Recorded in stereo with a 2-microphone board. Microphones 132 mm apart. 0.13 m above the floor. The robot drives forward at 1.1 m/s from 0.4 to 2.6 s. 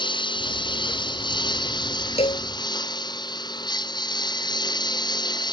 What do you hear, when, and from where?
0.0 s a lawn mower: 35° left (ahead or behind)
2.2 s a cowbell: 50° left (ahead or behind); by 2.5 s 45° left (ahead or behind)